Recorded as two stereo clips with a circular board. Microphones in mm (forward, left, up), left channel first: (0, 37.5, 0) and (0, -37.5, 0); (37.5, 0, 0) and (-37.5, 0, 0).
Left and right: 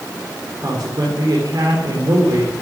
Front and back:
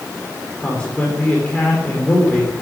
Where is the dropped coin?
No dropped coin in this recording.